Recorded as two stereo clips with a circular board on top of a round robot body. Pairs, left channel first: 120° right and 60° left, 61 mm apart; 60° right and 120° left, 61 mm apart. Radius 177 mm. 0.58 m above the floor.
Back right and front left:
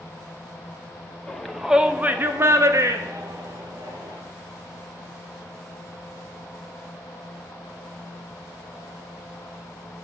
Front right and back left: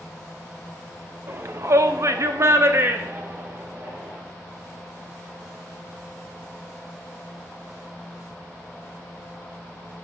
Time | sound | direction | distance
1.3 | a shout | 160° left | 2 m